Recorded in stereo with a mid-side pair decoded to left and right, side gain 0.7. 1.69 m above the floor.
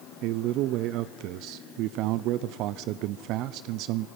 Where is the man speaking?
60° right, 0.7 m.